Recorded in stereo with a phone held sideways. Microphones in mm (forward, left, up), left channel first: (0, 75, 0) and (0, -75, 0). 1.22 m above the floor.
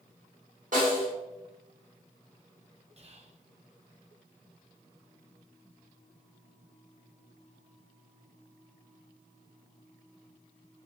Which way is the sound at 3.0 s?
45° right (ahead or behind).